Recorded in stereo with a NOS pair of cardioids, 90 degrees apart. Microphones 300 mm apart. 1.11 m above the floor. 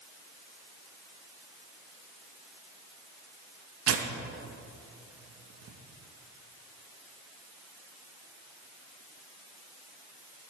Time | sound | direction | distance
3.9 | tearing paper | 55° right | 1.5 m